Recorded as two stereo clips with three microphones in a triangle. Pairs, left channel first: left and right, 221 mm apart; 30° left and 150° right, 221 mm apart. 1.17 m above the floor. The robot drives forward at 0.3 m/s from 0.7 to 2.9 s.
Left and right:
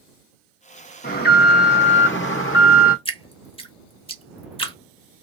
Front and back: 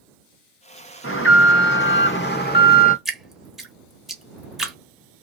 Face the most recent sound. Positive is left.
turn(degrees=125)